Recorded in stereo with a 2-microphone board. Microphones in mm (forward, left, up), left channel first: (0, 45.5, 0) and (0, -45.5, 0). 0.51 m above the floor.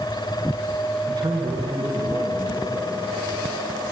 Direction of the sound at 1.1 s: 55° right (ahead or behind).